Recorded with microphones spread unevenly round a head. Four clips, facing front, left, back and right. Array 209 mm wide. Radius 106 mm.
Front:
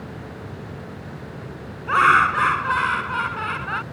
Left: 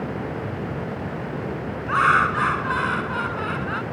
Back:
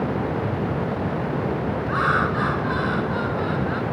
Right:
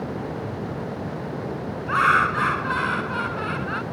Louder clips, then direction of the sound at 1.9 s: Left 1 dB, front 7 dB; 5° left.